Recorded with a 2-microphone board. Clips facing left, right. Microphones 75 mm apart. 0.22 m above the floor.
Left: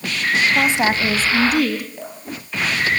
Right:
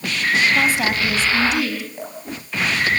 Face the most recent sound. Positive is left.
turn(degrees=-10)  # may be behind; listen again after turning